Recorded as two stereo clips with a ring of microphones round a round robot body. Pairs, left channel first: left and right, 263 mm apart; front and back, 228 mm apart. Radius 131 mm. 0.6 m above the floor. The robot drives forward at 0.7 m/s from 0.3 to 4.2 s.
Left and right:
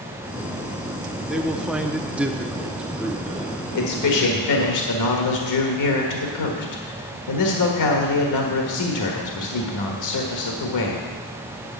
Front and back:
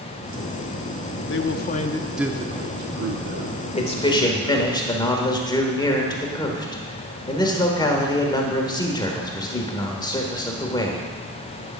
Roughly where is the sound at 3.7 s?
Ahead left.